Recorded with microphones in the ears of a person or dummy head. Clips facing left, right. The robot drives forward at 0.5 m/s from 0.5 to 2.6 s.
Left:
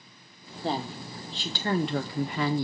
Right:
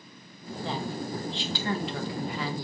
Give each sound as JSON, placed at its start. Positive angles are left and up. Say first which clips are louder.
{"t": 0.6, "sound": "a woman speaking", "louder": "left 1 dB", "side_deg": 35, "distance_m": 1.8}